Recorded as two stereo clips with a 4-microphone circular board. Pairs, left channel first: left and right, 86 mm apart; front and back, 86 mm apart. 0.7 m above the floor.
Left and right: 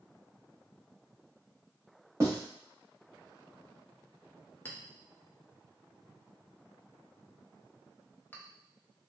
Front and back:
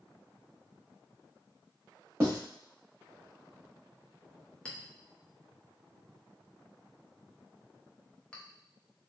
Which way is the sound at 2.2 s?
130° right.